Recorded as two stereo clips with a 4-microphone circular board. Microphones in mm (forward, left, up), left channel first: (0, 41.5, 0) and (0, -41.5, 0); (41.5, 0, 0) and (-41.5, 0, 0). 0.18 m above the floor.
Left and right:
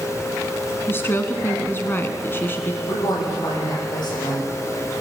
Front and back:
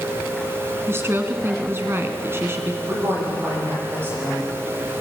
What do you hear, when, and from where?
0.9 s a woman speaking: 135° left, 1.4 m
2.8 s a woman speaking: 120° left, 7 m